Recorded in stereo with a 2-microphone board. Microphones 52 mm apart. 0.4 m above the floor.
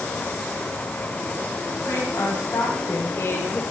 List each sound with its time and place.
1.9 s a woman speaking: 75° left (ahead or behind), 3 m; by 3.6 s 35° left (ahead or behind), 1.3 m